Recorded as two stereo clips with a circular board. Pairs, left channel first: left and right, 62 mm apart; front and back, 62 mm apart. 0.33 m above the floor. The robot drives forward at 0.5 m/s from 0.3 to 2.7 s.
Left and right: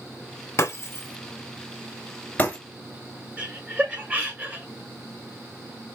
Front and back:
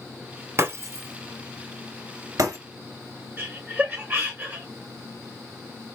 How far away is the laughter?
About 1.4 m.